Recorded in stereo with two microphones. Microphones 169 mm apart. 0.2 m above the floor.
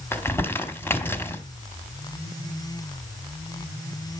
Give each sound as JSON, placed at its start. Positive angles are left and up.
{"t": 0.1, "sound": "crumpling", "side_deg": 15, "distance_m": 1.0}